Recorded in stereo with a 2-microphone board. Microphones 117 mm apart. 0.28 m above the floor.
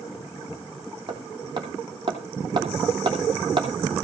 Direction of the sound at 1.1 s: 40° right (ahead or behind).